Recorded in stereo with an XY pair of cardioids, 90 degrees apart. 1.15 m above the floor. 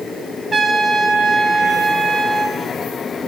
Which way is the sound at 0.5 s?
30° right.